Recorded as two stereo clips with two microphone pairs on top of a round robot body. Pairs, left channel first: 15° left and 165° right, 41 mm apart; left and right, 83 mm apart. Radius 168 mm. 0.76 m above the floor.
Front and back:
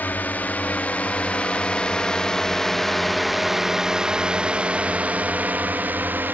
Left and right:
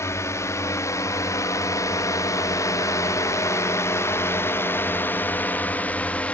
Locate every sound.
0.0 s a drone: 45° left; by 6.3 s 160° left